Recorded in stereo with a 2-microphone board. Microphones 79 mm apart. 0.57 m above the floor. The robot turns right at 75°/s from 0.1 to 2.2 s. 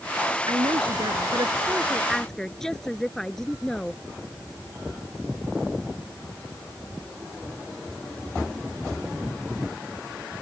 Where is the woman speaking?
125° right; by 4.0 s 5° left.